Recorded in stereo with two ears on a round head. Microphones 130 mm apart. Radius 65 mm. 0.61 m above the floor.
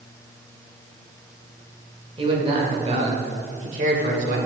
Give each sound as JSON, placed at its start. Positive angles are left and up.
{"t": 2.2, "sound": "a man speaking", "side_deg": -40, "distance_m": 2.5}